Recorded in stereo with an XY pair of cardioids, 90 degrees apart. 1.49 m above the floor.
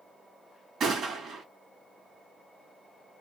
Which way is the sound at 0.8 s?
65° right.